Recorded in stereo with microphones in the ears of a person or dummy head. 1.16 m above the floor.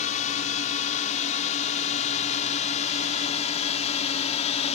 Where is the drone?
35° left (ahead or behind); by 4.8 s 30° left (ahead or behind).